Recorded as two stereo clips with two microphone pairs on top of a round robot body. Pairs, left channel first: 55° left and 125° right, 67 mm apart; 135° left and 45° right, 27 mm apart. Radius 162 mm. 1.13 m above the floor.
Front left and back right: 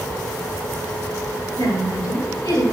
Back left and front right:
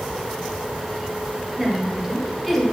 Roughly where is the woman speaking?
Ahead left.